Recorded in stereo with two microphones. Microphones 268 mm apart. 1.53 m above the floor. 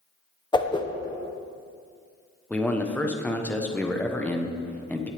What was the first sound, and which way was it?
A whoosh, 15° left (ahead or behind).